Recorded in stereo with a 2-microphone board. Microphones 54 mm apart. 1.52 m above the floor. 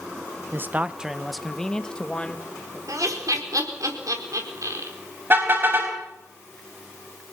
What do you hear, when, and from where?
0.5 s a man speaking: 45° right (ahead or behind), 0.7 m; by 2.8 s 25° left (ahead or behind), 2 m
2.9 s laughter: 85° right, 4.5 m
5.3 s a car horn: 40° right (ahead or behind), 4.5 m